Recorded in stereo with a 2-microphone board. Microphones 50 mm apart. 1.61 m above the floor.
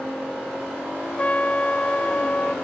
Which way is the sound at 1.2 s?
25° left (ahead or behind).